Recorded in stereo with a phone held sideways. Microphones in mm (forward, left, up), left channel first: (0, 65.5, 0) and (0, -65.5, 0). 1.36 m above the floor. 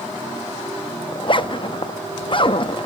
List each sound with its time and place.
1.1 s a zipper: 40° left (ahead or behind), 0.9 m